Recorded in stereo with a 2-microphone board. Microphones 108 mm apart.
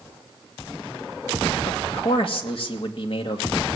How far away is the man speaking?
About 2 m.